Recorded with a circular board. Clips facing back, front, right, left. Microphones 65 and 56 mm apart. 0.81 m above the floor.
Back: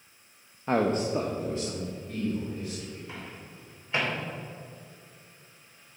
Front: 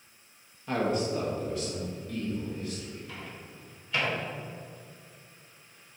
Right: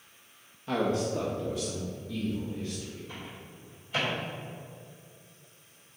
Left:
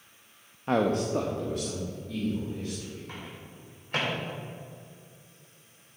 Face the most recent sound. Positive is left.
turn(degrees=120)